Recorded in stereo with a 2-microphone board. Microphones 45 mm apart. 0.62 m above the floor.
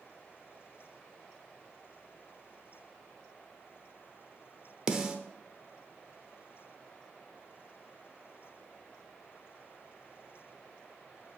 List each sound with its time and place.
4.9 s a snare drum: 15° right (ahead or behind), 0.8 m